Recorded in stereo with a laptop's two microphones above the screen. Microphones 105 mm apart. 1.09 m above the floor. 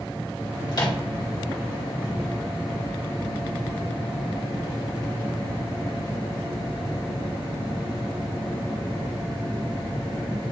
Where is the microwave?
45° left (ahead or behind), 1.8 m.